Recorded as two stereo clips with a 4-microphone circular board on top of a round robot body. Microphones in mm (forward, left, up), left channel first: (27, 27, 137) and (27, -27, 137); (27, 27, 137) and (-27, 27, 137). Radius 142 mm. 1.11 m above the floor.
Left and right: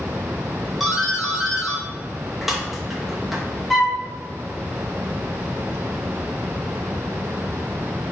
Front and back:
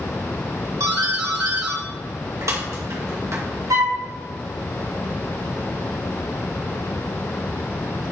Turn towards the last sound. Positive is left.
turn(degrees=175)